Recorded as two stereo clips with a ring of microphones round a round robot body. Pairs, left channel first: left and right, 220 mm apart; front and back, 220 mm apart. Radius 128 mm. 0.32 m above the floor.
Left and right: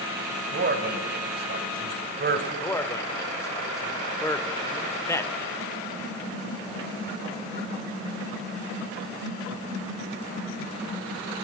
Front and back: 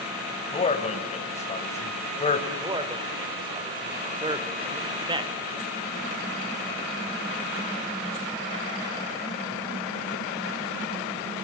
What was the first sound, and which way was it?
A man speaking, 55° right.